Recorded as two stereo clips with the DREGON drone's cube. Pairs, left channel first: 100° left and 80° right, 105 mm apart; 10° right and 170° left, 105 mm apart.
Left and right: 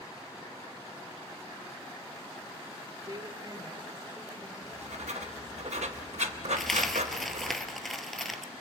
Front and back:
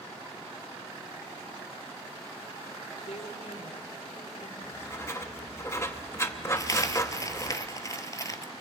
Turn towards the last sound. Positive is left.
turn(degrees=15)